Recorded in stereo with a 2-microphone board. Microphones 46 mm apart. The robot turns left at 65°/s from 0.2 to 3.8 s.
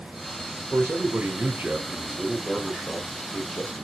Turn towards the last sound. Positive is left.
turn(degrees=85)